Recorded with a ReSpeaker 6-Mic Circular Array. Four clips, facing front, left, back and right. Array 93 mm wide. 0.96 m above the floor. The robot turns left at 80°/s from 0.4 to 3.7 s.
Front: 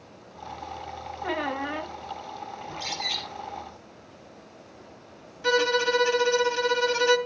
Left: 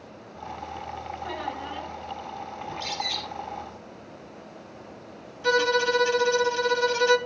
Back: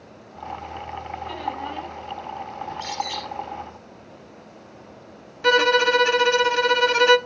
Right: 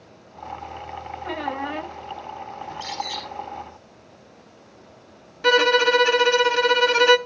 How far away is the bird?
About 4.5 m.